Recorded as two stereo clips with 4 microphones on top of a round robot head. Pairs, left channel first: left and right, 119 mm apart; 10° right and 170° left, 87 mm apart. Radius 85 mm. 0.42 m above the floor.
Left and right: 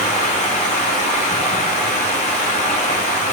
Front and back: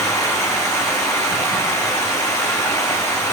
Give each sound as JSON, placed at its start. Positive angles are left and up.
{"t": 0.0, "sound": "running water", "azimuth_deg": 45, "distance_m": 1.5}